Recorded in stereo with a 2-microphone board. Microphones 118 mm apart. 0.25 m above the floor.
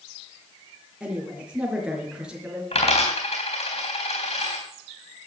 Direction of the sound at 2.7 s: 65° left (ahead or behind).